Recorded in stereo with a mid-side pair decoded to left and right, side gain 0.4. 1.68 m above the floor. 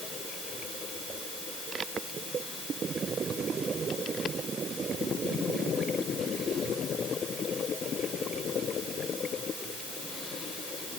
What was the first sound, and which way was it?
Only background noise.